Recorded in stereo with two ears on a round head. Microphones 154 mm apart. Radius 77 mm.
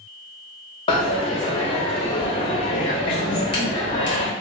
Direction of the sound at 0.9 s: 30° left (ahead or behind).